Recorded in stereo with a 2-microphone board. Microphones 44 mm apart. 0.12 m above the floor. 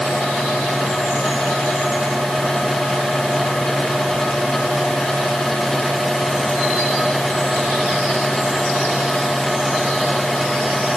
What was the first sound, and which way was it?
Only background noise.